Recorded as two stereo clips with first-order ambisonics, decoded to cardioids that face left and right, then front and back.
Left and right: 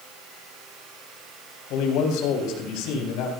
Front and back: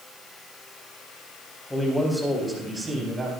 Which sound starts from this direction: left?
A man speaking, at 1.7 s.